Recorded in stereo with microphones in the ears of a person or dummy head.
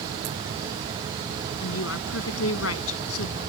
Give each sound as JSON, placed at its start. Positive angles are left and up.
{"t": 1.6, "sound": "a woman speaking", "side_deg": 90}